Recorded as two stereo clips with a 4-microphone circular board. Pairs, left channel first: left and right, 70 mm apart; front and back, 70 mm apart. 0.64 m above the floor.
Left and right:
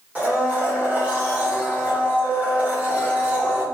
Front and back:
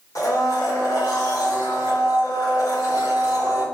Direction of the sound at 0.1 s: 25° right.